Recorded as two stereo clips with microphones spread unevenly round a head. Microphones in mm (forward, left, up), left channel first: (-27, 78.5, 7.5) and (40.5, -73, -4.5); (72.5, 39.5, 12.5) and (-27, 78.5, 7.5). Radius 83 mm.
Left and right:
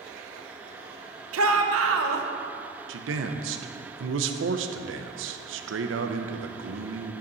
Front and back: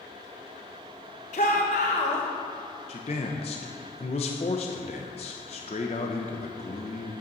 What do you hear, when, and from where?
1.3 s a shout: 70° right, 1.2 m
2.9 s a man speaking: 70° right, 0.8 m